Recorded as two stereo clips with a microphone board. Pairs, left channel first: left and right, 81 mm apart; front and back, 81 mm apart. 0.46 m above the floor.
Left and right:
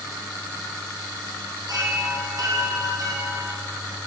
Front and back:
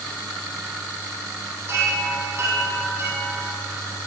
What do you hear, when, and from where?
1.7 s a chime: 125° right, 3 m